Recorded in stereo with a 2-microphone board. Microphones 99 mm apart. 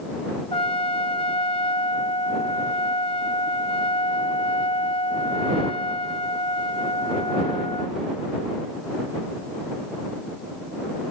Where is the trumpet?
70° left (ahead or behind).